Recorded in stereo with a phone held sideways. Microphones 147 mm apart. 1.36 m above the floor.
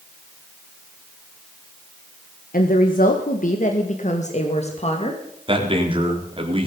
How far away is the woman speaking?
About 1.6 m.